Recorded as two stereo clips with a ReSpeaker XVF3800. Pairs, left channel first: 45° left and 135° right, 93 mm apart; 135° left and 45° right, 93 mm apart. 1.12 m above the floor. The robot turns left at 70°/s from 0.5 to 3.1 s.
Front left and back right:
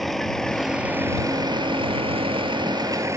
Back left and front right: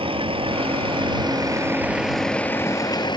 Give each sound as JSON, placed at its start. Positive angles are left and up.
{"t": 0.0, "sound": "a vehicle", "azimuth_deg": -45}